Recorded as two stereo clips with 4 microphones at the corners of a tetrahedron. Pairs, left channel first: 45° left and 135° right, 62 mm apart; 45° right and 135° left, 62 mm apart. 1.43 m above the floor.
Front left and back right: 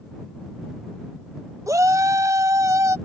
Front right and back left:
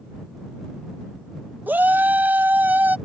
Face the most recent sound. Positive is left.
turn(degrees=-165)